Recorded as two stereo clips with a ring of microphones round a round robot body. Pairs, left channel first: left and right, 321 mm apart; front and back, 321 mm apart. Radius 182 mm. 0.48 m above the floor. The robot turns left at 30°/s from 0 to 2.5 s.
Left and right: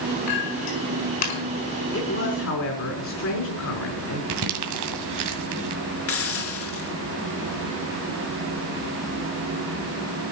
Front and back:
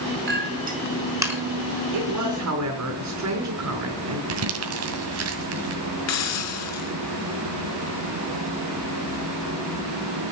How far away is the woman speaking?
About 5 m.